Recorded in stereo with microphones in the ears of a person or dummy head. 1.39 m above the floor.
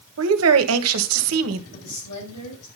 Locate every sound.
0.2 s a woman speaking: 80° right, 1.4 m
1.7 s a woman speaking: 60° left (ahead or behind), 6.5 m